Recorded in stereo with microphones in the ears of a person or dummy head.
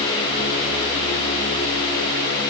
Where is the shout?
No shout in this recording.